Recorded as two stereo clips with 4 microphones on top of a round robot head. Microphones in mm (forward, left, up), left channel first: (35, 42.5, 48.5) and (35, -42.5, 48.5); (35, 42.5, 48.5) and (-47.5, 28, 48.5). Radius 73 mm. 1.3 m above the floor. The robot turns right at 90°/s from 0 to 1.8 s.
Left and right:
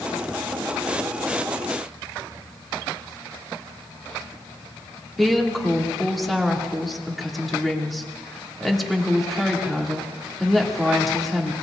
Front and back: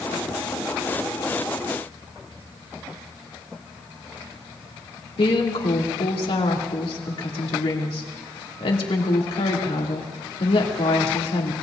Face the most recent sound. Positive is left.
turn(degrees=0)